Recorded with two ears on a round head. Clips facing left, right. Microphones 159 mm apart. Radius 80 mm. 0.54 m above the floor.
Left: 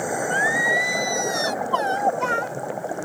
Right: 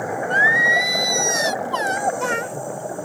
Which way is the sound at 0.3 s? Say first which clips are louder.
Right 1 dB; 25° right (ahead or behind).